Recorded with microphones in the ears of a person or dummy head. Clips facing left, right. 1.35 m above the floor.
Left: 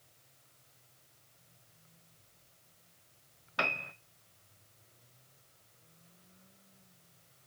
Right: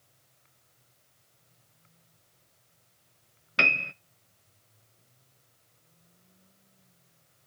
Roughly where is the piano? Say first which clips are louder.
Right 4 dB; right.